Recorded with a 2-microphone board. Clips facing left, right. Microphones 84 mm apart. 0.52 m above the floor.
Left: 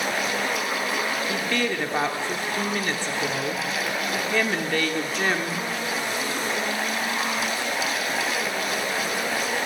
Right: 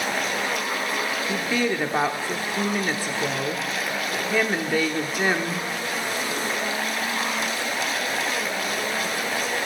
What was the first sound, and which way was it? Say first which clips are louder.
A woman speaking: right 1 dB; 10° right (ahead or behind).